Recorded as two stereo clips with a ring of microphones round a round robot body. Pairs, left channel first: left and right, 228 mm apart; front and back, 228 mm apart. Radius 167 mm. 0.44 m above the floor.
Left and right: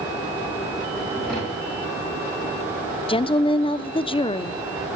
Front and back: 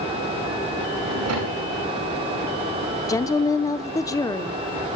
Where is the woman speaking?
55° left, 0.9 m.